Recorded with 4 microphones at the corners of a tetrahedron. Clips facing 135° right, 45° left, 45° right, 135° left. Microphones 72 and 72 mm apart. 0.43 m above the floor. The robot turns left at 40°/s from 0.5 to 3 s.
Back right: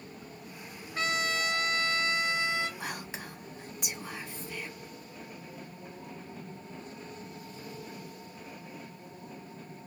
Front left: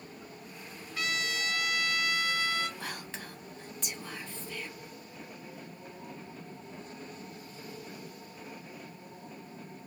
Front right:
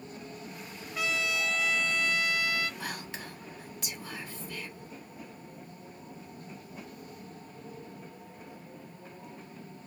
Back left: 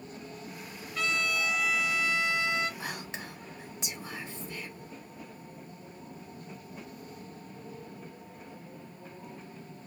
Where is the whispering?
175° left, 0.8 m; by 4.7 s 170° left, 0.8 m.